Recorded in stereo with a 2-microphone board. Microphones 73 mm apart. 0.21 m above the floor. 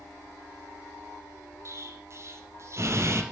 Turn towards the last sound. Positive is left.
turn(degrees=-40)  # may be behind; listen again after turning